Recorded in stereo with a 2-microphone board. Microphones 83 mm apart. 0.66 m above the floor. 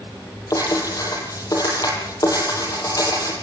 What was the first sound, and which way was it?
Writing, 45° left (ahead or behind).